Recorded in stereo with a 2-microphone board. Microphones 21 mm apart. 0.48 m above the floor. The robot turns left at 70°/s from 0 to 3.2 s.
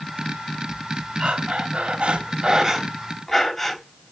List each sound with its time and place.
1.2 s breathing: 45° right, 3 m; by 4.1 s 175° left, 3 m